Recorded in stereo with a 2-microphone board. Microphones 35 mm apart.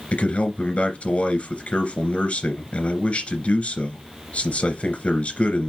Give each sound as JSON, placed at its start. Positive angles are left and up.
{"t": 0.1, "sound": "a man speaking", "side_deg": 35, "distance_m": 2.5}